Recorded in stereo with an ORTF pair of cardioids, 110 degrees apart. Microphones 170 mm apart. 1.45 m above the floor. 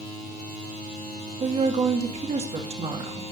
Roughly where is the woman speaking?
Ahead right.